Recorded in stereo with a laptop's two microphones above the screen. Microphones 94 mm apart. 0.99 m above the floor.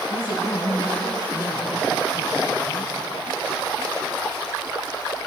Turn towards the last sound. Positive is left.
turn(degrees=50)  # may be behind; listen again after turning